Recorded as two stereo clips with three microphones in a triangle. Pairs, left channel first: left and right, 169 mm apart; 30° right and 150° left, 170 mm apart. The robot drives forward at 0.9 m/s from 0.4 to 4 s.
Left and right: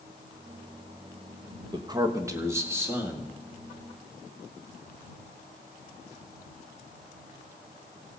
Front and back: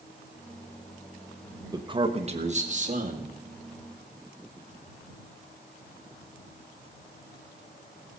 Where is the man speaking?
145° right, 1.0 m; by 3.4 s 170° right, 2.5 m.